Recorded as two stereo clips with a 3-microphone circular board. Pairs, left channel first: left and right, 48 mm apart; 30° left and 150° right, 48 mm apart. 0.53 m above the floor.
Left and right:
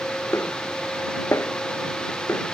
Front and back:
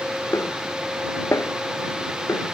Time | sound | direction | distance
0.3 | a snare drum | 55° left | ?